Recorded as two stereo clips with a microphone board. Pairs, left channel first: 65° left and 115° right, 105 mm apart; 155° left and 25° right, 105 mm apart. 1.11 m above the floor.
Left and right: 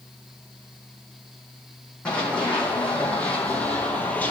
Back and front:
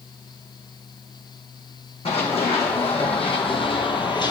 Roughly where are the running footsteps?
Behind left.